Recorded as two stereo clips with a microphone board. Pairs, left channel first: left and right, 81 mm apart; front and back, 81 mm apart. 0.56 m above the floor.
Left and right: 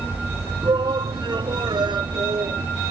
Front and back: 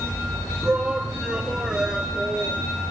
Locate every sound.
0.6 s a shout: 105° right; by 2.6 s 100° right